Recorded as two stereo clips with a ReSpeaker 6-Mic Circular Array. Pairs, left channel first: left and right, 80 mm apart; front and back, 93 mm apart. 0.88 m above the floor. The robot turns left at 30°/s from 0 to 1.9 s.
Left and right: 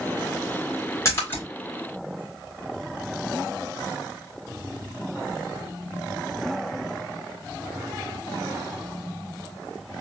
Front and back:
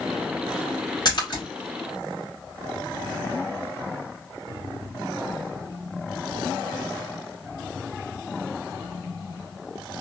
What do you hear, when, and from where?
1.1 s a splash: 40° left, 1.8 m; by 1.4 s 25° left, 1.8 m